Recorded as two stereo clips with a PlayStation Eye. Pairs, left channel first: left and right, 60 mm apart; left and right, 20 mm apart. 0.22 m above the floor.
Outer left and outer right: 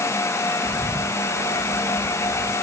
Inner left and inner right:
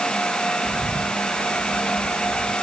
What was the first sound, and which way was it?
A bird, 5° left (ahead or behind).